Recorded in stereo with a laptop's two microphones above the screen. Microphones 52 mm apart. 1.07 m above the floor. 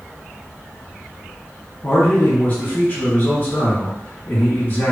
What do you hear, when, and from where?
1.8 s a man speaking: 35° left (ahead or behind), 1.8 m